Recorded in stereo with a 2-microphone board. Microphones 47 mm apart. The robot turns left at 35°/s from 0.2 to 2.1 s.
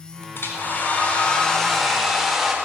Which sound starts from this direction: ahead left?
A hair dryer, at 0.3 s.